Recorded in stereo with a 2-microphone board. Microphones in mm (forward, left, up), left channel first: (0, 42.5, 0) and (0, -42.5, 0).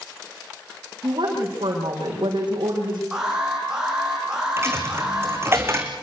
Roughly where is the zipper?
No zipper in this recording.